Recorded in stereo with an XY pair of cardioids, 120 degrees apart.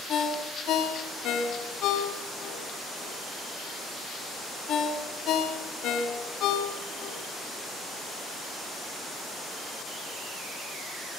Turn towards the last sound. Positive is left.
turn(degrees=70)